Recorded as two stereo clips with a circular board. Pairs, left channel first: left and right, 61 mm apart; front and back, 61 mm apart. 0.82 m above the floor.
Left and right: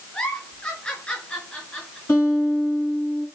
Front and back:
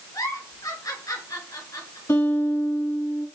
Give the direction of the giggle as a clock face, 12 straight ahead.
11 o'clock.